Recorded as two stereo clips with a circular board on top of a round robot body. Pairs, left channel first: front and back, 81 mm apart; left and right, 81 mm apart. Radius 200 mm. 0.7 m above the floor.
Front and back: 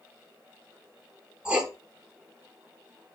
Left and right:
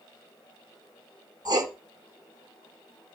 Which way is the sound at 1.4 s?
105° right.